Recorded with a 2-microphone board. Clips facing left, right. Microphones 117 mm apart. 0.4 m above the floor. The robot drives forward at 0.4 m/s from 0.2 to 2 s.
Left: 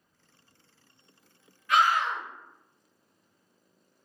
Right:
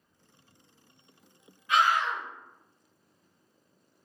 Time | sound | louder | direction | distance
1.7 | a scream | left 1 dB | 20° right (ahead or behind) | 1.9 m